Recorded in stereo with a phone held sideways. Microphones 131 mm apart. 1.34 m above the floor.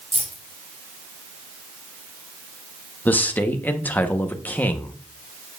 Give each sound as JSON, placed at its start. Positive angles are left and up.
{"t": 0.1, "sound": "keys jangling", "side_deg": -65, "distance_m": 2.5}
{"t": 3.0, "sound": "a man speaking", "side_deg": 15, "distance_m": 0.9}